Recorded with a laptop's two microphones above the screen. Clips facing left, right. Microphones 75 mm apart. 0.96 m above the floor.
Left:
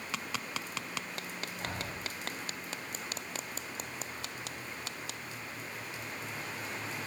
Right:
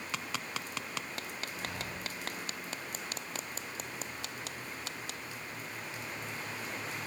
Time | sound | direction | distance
1.6 | breathing | 45° left (ahead or behind) | 1.4 m